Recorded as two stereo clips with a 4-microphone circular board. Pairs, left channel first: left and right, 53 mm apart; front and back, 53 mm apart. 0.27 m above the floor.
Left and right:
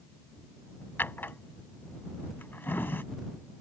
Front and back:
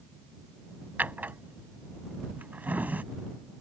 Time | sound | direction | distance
1.0 | a drawer | 130° left | ?